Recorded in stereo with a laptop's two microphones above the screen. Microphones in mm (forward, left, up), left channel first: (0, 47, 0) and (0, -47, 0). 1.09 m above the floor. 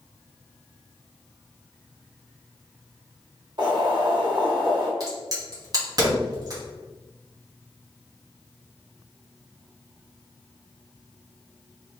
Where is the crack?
40° right (ahead or behind), 1.4 m.